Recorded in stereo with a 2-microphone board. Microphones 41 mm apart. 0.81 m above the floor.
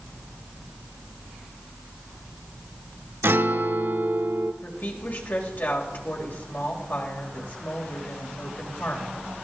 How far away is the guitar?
About 1.1 m.